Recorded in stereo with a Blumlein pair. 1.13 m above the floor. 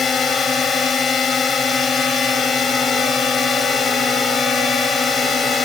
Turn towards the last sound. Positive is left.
turn(degrees=15)